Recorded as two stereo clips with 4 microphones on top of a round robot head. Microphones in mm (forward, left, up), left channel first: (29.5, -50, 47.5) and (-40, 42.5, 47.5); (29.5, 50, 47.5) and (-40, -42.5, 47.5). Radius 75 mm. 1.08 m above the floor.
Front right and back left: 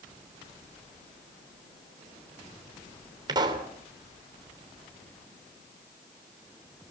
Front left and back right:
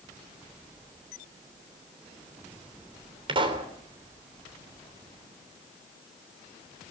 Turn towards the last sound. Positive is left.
turn(degrees=-175)